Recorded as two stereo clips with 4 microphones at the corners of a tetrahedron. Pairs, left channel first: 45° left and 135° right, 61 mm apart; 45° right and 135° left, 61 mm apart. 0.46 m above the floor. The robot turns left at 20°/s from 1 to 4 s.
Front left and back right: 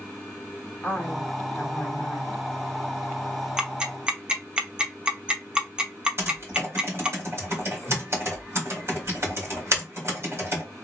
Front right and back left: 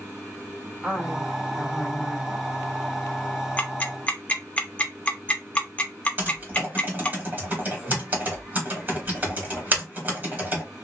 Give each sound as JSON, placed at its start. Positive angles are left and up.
{"t": 0.8, "sound": "a woman speaking", "azimuth_deg": 80, "distance_m": 1.3}
{"t": 3.6, "sound": "ticking", "azimuth_deg": -75, "distance_m": 0.6}
{"t": 6.2, "sound": "typing on a keyboard", "azimuth_deg": -170, "distance_m": 2.0}